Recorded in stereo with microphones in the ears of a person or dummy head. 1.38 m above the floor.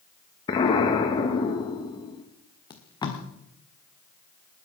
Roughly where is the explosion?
Left.